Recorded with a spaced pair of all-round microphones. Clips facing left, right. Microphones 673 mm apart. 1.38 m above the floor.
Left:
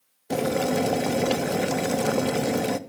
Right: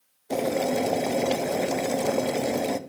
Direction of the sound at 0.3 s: 45° left (ahead or behind).